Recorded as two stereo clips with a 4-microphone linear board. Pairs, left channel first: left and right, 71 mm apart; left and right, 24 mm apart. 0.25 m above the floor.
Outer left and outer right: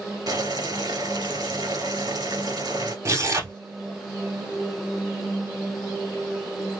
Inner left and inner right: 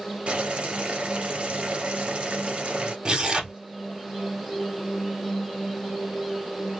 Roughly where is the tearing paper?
Right.